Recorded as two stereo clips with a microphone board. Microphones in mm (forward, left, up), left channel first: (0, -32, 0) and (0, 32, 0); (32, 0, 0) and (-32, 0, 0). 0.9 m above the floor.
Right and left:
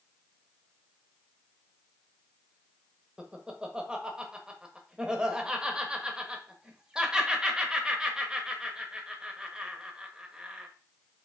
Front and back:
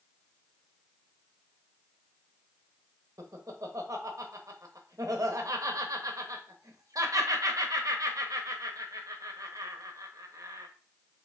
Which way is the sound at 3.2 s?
165° left.